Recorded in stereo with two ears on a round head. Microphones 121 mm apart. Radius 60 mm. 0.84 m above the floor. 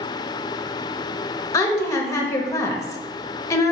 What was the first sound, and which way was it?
A woman speaking, 25° left (ahead or behind).